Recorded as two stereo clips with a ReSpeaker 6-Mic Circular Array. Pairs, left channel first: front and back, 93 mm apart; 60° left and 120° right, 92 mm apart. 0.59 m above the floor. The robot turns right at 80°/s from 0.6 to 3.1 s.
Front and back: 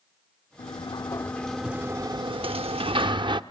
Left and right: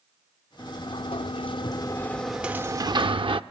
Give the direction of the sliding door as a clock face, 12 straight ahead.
12 o'clock.